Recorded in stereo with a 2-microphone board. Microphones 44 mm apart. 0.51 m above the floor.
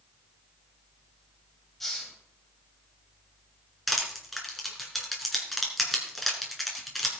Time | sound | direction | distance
1.8 | a hiss | 5° left (ahead or behind) | 2.5 m
3.9 | crushing | centre (ahead or behind) | 3 m